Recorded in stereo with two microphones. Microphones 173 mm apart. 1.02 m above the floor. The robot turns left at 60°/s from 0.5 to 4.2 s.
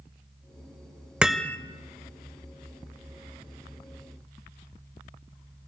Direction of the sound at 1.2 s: 5° right (ahead or behind).